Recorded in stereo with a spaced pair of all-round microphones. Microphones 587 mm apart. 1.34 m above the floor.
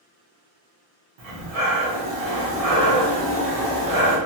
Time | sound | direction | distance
1.2 | breathing | 70° right (ahead or behind) | 0.9 m